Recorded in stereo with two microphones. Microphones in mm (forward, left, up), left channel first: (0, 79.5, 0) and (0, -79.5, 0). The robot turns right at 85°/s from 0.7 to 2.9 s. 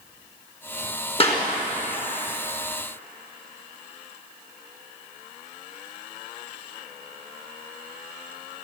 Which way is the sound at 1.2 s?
35° left (ahead or behind).